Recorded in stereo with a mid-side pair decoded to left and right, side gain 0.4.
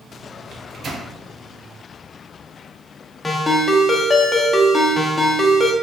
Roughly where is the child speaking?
I don't hear a child speaking.